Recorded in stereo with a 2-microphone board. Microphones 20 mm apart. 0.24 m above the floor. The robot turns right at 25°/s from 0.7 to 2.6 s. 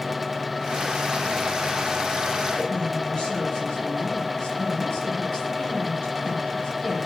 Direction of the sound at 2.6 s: 40° left (ahead or behind).